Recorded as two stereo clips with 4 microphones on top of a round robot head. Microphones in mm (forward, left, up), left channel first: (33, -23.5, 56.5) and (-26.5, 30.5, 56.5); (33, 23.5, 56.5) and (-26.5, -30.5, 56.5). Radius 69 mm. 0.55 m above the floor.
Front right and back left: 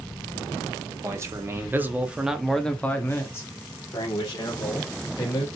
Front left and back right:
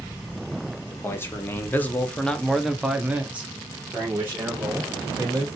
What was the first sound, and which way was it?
A man speaking, 95° left.